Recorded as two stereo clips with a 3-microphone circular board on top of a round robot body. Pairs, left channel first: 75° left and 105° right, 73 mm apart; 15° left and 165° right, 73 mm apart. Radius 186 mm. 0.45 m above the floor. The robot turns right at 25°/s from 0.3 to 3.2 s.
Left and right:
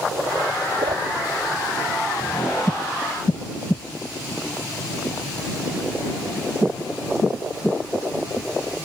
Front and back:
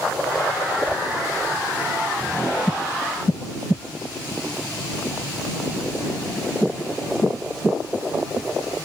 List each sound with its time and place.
0.8 s a whoosh: 95° right; by 1.0 s 90° right